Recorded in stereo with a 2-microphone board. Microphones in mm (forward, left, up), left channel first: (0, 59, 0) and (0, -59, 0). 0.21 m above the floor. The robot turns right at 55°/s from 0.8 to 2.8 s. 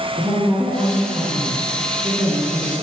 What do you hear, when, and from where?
0.2 s a woman speaking: 170° right, 1.7 m; by 2.7 s 65° right, 1.7 m